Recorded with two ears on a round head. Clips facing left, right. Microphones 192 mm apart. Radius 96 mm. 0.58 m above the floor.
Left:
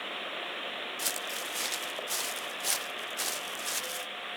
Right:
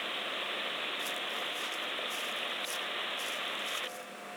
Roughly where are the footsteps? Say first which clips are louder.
Even; left.